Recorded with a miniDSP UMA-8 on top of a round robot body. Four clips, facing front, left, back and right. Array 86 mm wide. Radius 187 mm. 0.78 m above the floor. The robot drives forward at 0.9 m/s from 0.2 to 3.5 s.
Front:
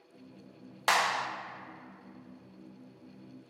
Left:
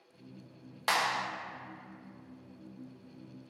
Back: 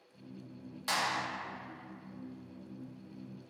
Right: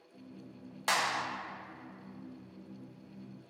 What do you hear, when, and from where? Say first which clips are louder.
0.9 s a clap: left 1 dB, front 6 dB; 10° left, 1.0 m; by 1.3 s 15° left, 0.7 m